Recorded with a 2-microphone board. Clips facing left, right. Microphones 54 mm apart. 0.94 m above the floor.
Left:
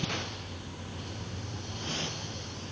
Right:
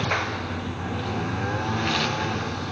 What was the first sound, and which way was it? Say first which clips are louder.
A lawn mower: right 11 dB; 90° right.